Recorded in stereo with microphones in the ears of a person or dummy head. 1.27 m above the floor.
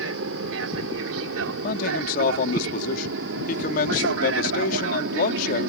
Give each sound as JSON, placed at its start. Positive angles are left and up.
{"t": 0.0, "sound": "an aircraft", "side_deg": -75}
{"t": 1.6, "sound": "a man speaking", "side_deg": 50}